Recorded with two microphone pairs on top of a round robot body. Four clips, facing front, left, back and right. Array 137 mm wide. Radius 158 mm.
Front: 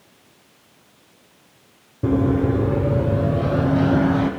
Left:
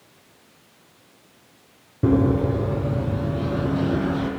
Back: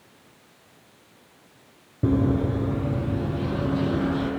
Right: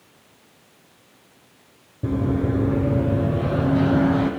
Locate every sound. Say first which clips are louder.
2.0 s running footsteps: left 4 dB, front 4 dB; 120° left, 0.8 m; by 4.3 s 40° right, 3 m